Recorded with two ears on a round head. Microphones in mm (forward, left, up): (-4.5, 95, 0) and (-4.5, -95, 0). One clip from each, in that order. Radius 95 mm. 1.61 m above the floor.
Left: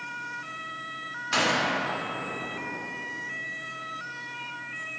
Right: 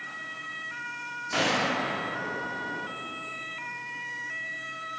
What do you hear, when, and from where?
1.3 s a gunshot: 35° left (ahead or behind), 1.7 m